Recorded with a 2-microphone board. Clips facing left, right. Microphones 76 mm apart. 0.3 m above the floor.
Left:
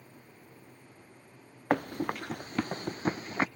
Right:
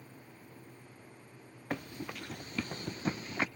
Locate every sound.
1.7 s running footsteps: 60° left (ahead or behind); by 3.5 s 35° left (ahead or behind)